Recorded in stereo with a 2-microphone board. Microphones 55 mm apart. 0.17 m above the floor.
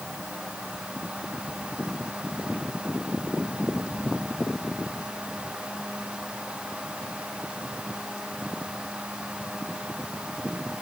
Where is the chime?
No chime in this recording.